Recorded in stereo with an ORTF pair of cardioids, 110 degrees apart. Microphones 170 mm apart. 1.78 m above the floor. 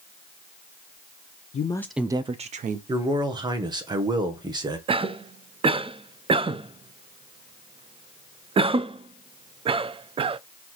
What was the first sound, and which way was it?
A woman speaking, 45° left.